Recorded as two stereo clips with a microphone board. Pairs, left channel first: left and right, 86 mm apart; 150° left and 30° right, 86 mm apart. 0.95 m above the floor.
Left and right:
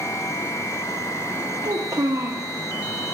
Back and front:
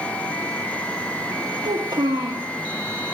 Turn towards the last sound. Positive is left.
turn(degrees=-50)